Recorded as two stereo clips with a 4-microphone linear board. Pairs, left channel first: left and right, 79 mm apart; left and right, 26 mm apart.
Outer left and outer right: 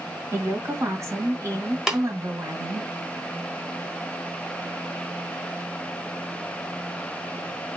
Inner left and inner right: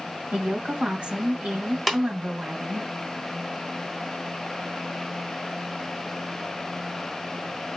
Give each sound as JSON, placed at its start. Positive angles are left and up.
{"t": 0.3, "sound": "a woman speaking", "side_deg": -40, "distance_m": 1.7}
{"t": 1.9, "sound": "tapping", "side_deg": -5, "distance_m": 1.2}